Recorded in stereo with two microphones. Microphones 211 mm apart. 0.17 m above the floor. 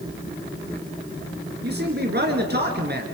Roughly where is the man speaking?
Right.